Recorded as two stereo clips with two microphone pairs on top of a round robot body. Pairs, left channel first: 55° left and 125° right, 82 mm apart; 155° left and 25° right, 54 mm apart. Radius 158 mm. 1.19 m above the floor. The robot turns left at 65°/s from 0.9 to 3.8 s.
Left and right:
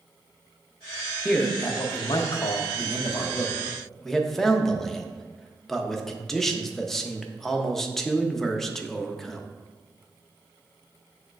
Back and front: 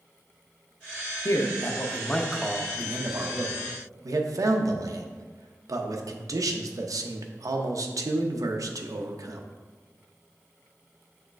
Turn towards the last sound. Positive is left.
turn(degrees=-25)